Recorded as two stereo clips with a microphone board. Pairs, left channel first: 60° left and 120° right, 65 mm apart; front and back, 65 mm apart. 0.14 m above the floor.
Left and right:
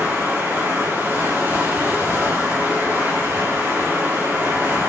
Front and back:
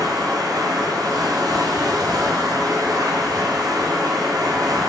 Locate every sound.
0.0 s running water: straight behind, 5 m